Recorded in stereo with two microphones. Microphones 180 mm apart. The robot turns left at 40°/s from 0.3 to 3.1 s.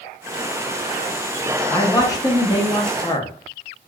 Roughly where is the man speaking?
Centre.